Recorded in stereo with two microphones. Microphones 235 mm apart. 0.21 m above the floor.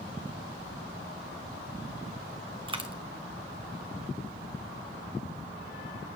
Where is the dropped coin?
20° right (ahead or behind), 1.0 m.